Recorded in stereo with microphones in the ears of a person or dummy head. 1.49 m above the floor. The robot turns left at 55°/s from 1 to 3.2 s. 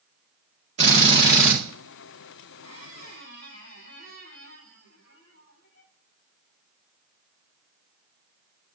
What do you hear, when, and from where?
0.8 s a drill: 140° right, 2 m; by 1.6 s 175° right, 2 m
2.6 s a squeak: 155° left, 4 m; by 5.9 s 120° left, 4 m